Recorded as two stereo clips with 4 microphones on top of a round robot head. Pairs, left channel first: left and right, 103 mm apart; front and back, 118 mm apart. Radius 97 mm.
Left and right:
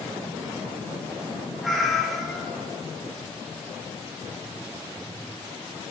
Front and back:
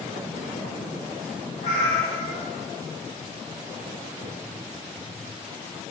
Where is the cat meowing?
Straight ahead, 1.6 m.